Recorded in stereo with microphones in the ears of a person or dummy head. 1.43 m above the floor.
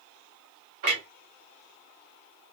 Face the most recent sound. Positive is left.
turn(degrees=-40)  # may be behind; listen again after turning